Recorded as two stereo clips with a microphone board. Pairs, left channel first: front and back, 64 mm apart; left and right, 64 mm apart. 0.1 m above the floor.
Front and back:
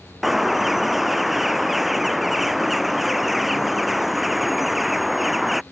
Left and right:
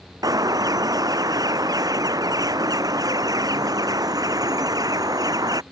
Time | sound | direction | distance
0.2 | a bird | 90° right | ?